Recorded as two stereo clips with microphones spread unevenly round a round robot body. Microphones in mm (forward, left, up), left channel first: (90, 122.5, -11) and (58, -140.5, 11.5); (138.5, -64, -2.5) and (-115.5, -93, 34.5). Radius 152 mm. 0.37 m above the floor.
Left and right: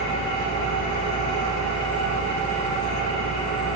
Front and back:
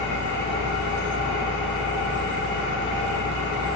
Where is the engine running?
45° left, 3.5 m.